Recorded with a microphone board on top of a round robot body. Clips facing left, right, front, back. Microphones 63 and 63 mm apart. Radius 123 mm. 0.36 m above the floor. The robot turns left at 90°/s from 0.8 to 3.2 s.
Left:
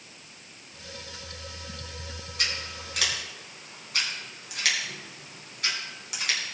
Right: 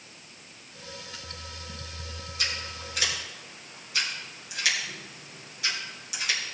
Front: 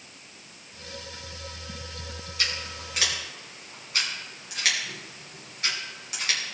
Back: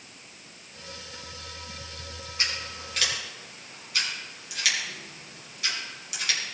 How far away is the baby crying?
I don't hear a baby crying.